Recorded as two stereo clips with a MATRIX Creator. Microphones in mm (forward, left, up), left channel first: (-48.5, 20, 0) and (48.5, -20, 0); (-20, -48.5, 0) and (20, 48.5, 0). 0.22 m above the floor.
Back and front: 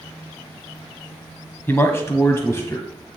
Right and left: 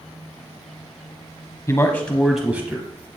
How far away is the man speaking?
About 1.2 m.